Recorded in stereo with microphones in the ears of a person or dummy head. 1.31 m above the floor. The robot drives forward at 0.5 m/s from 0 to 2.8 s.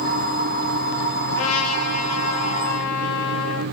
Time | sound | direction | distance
1.3 | a trumpet | 85° left | 3 m